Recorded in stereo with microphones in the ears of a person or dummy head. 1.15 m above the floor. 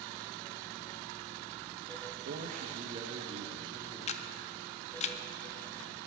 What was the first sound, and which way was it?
A man speaking, 60° right (ahead or behind).